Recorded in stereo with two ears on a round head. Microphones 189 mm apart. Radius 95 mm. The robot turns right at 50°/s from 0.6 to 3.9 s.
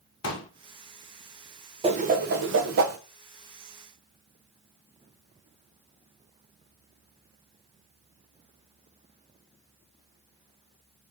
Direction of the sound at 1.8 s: 30° right (ahead or behind).